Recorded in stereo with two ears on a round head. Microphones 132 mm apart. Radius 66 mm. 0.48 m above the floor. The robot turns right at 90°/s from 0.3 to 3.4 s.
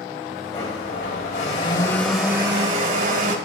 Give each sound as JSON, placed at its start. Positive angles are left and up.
{"t": 0.5, "sound": "a blender", "azimuth_deg": 30, "distance_m": 2.5}